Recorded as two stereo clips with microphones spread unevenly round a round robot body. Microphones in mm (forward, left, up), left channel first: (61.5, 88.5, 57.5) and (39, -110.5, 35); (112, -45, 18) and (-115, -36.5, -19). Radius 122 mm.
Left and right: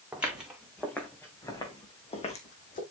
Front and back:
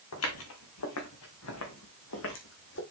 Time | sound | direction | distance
0.1 | footsteps | 10° right | 3 m